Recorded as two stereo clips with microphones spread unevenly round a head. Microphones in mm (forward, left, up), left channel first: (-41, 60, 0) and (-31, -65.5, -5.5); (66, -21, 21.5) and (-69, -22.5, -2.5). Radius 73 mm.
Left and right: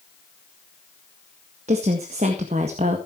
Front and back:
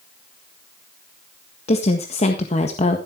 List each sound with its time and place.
1.7 s a woman speaking: 40° right, 1.6 m